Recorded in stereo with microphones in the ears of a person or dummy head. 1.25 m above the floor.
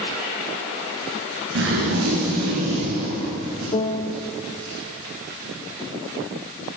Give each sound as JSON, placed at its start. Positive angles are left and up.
{"t": 1.6, "sound": "a zipper", "side_deg": -70, "distance_m": 9.0}
{"t": 3.7, "sound": "a piano", "side_deg": 30, "distance_m": 0.8}